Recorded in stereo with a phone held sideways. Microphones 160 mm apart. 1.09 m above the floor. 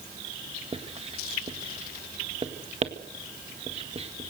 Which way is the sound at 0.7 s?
35° right (ahead or behind).